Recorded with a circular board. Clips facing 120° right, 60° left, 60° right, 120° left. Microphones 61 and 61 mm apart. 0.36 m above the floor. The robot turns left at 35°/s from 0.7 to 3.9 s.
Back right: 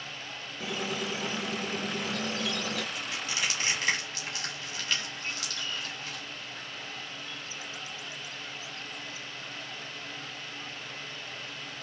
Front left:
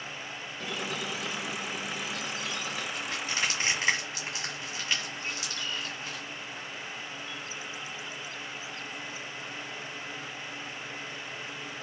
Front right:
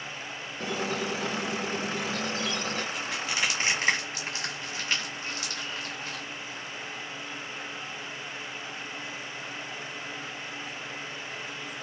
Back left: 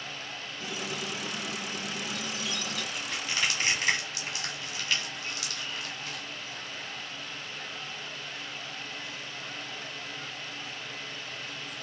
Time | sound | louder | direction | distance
0.6 | a squeak | back right 2 dB, front right 6 dB | 35° right | 0.5 m
3.0 | crushing | front left 2 dB, front right 2 dB | 30° left | 1.8 m